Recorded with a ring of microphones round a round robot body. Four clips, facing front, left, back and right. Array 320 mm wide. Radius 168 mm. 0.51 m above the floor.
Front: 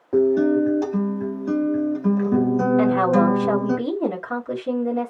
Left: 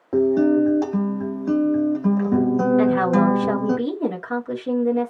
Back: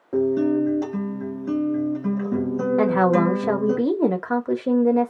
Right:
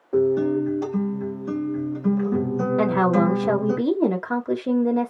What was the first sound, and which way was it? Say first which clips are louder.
A guitar: left 3 dB, front 3 dB; 90° left.